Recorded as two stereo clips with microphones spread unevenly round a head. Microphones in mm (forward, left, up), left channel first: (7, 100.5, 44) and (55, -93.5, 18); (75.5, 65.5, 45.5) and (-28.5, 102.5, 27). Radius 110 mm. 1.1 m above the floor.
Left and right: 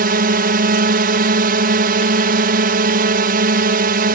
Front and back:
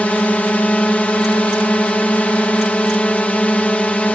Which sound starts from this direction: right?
A drone, at 0.0 s.